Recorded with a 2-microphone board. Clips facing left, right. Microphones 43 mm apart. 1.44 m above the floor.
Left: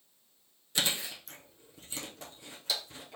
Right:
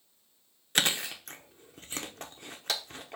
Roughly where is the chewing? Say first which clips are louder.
Right 4 dB; right.